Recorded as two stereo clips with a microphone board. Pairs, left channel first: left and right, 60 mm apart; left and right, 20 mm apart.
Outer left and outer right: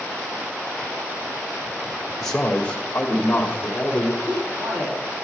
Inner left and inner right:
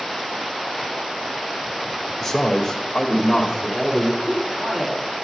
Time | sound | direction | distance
2.2 | a man speaking | 10° left (ahead or behind) | 1.5 m
4.2 | a man speaking | 65° right (ahead or behind) | 2 m